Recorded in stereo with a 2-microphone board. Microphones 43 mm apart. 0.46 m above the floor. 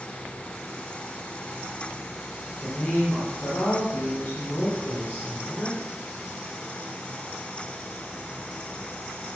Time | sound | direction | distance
2.6 | a woman speaking | 50° left (ahead or behind) | 4.5 m